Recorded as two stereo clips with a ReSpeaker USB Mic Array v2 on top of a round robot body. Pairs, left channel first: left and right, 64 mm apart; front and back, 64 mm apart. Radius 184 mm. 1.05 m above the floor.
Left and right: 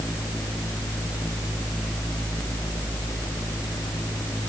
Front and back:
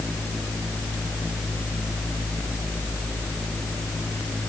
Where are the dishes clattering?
No dishes clattering in this recording.